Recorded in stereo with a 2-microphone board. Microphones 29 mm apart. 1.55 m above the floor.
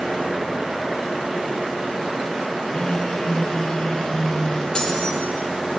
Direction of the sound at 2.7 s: 30° left (ahead or behind).